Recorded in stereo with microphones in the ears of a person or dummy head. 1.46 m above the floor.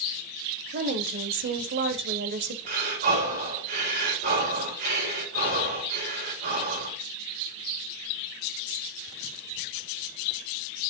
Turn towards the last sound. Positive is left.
turn(degrees=-65)  # may be behind; listen again after turning